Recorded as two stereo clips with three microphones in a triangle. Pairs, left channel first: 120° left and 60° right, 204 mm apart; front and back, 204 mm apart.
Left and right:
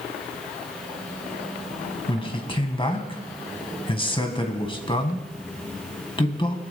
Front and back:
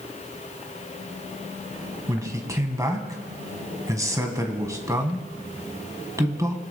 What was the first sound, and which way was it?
A man speaking, 130° left.